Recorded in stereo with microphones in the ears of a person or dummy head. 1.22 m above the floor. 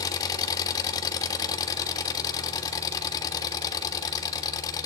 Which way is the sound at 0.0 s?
25° left (ahead or behind).